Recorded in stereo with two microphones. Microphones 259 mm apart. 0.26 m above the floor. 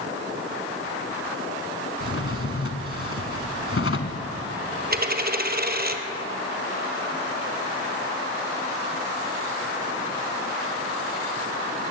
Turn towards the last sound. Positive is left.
turn(degrees=-40)  # may be behind; listen again after turning